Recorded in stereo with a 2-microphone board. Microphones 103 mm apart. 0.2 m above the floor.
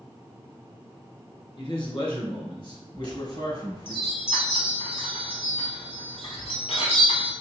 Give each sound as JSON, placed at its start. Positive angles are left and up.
{"t": 1.6, "sound": "a man speaking", "side_deg": 50, "distance_m": 3.0}
{"t": 2.9, "sound": "a chime", "side_deg": 70, "distance_m": 3.5}